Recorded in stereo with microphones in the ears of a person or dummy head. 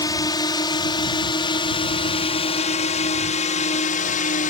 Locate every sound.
0.0 s a drone: 15° left (ahead or behind); by 4.5 s 35° left (ahead or behind)